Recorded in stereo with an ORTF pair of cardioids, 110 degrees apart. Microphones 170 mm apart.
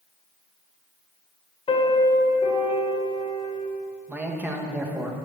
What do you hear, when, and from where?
1.7 s a piano: 40° left, 2 m
4.1 s a man speaking: 10° right, 1.8 m